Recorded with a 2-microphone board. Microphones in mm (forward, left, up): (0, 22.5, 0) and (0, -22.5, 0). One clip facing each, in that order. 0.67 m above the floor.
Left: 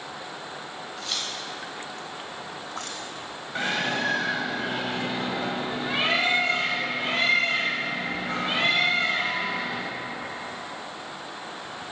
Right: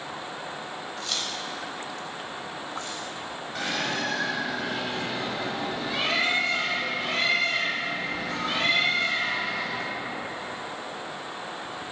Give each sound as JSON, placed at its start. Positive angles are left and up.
{"t": 1.0, "sound": "keys jangling", "side_deg": 5, "distance_m": 2.0}
{"t": 3.5, "sound": "a bird", "side_deg": 25, "distance_m": 1.6}